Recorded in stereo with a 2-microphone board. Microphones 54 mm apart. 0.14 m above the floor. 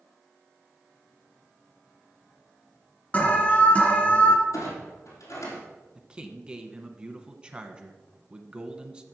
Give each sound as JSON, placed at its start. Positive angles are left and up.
{"t": 3.1, "sound": "an alarm", "side_deg": 30, "distance_m": 1.7}
{"t": 4.5, "sound": "a clunk", "side_deg": 70, "distance_m": 4.0}
{"t": 6.0, "sound": "a man speaking", "side_deg": -15, "distance_m": 1.1}